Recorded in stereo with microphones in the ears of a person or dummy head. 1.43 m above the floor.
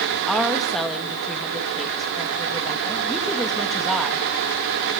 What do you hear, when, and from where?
0.3 s a woman speaking: centre (ahead or behind), 2.5 m